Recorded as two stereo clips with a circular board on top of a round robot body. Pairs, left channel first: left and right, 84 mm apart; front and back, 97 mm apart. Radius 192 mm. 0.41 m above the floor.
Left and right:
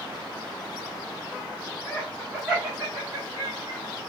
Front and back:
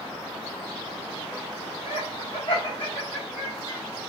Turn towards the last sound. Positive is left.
turn(degrees=-45)